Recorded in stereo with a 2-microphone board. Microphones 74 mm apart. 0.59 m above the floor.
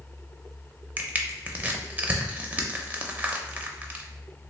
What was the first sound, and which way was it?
Crushing, 20° right (ahead or behind).